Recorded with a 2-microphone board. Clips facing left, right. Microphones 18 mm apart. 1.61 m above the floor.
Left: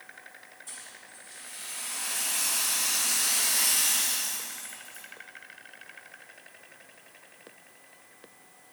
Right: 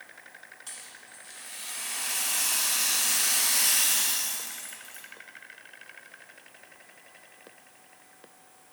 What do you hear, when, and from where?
0.7 s a rattle: 85° right, 0.6 m